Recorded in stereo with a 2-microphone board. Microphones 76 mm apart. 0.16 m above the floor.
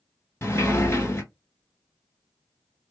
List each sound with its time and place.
0.4 s a sliding door: 35° left (ahead or behind), 1.0 m